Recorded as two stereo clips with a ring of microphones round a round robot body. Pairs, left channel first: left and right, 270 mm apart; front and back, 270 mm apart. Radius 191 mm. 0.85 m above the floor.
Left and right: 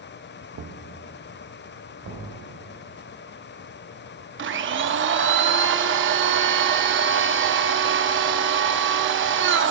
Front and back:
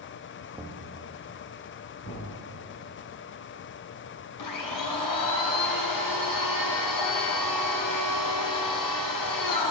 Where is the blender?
40° right, 0.7 m.